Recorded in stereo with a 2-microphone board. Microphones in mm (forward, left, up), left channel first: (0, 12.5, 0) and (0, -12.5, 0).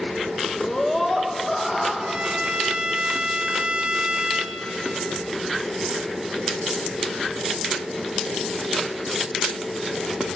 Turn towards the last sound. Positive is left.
turn(degrees=-50)  # may be behind; listen again after turning